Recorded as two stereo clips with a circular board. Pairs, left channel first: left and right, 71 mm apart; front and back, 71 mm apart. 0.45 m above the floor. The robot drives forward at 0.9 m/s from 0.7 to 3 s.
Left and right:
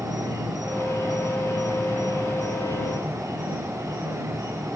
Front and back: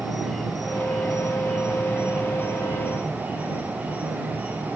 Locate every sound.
0.0 s an insect: 90° right, 4 m; by 4.8 s 115° right, 4.5 m